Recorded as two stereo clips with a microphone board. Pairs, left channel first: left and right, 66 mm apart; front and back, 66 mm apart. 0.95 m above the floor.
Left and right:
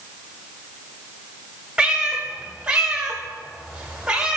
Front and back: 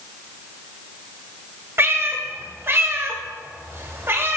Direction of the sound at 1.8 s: 160° right.